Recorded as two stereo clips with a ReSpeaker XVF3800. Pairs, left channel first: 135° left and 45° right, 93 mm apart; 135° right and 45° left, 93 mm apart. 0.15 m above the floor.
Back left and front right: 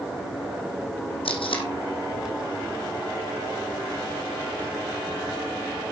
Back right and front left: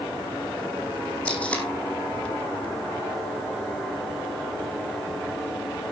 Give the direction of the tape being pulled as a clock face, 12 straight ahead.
7 o'clock.